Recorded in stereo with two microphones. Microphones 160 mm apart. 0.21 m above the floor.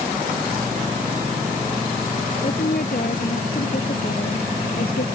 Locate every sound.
2.4 s a woman speaking: 60° left (ahead or behind); by 5.0 s 70° left (ahead or behind)